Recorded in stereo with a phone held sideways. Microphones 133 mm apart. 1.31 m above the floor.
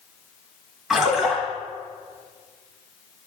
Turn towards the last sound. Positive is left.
turn(degrees=-5)  # may be behind; listen again after turning